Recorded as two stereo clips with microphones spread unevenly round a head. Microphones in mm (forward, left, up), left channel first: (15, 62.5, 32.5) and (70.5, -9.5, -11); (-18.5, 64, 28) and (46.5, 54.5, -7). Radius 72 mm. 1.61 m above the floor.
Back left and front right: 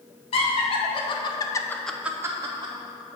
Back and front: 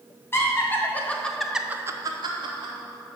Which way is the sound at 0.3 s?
125° left.